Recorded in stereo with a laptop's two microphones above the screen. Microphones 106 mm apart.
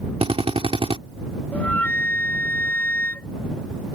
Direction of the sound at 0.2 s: 65° right (ahead or behind).